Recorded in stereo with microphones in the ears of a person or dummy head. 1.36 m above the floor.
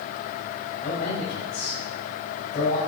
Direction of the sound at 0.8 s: 45° left (ahead or behind).